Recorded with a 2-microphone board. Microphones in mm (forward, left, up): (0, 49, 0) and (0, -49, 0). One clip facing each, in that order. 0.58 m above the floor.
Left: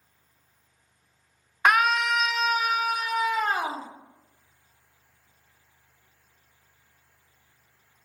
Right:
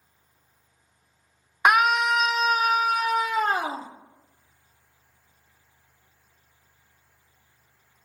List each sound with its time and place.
1.6 s a scream: 15° right (ahead or behind), 0.8 m; by 3.9 s 40° right (ahead or behind), 1.2 m